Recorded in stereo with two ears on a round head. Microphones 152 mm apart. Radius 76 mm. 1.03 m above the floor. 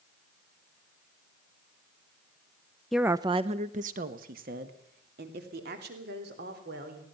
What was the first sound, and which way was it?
A woman speaking, centre (ahead or behind).